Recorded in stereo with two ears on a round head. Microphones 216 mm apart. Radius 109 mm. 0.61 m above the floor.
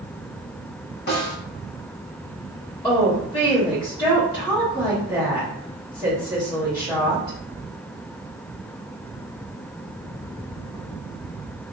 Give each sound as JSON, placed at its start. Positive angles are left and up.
{"t": 1.1, "sound": "a snare drum", "side_deg": 40, "distance_m": 1.0}
{"t": 2.8, "sound": "a woman speaking", "side_deg": 20, "distance_m": 1.6}